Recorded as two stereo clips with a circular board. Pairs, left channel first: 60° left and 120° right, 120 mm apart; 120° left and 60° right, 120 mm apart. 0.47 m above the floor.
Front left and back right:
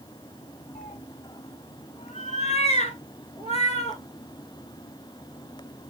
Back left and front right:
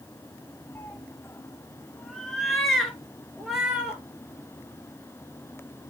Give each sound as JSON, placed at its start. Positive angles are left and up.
{"t": 0.8, "sound": "a cat meowing", "azimuth_deg": 50, "distance_m": 0.9}